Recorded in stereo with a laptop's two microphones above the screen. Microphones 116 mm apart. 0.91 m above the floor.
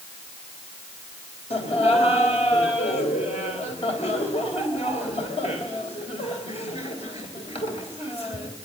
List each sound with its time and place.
1.5 s laughter: 65° left (ahead or behind), 4 m